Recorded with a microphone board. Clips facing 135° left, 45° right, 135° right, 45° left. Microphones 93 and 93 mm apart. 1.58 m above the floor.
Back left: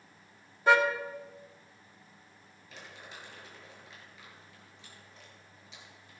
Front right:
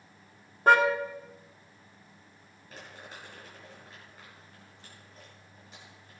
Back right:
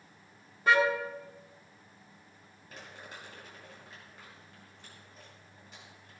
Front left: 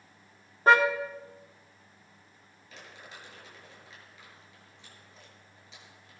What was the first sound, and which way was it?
A car horn, 5° right.